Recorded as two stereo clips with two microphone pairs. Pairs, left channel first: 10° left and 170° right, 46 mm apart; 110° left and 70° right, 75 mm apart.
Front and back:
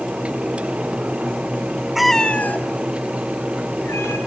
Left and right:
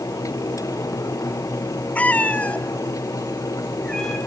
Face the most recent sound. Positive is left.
turn(degrees=30)